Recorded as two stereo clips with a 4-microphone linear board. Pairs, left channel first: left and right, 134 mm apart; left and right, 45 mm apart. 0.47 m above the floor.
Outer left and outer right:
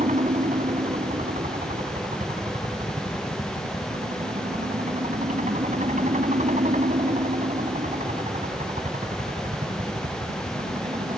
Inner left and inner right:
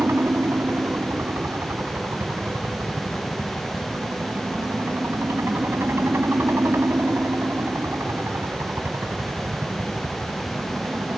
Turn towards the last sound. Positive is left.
turn(degrees=-65)  # may be behind; listen again after turning